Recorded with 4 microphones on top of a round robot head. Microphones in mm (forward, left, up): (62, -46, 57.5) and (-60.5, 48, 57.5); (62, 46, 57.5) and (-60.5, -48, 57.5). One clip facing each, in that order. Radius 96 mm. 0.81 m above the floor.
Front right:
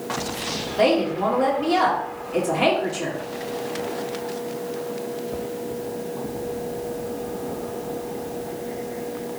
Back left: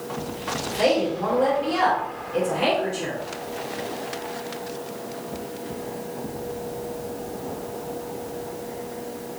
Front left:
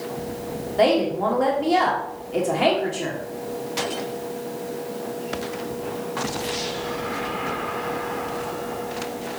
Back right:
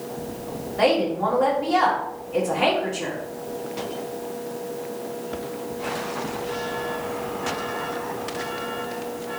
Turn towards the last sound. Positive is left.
turn(degrees=-20)